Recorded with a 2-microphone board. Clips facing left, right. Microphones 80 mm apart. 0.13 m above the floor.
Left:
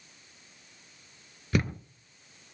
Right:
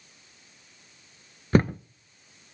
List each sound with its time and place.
1.5 s a thud: 40° right (ahead or behind), 0.5 m